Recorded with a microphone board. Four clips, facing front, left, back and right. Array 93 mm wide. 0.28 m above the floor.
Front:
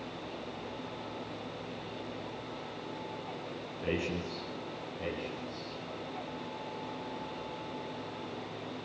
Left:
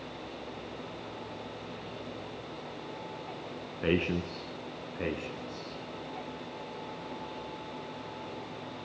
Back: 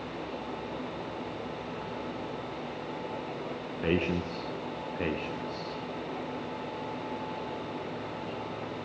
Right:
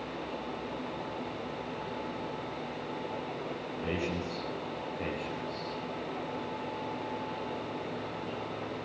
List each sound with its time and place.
3.8 s a man speaking: 130° left, 3 m; by 5.8 s 165° left, 3 m